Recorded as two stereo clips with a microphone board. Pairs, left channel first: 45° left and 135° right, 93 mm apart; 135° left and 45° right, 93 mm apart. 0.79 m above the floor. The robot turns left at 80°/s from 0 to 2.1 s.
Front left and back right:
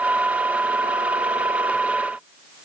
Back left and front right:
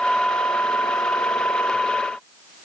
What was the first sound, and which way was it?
Only background noise.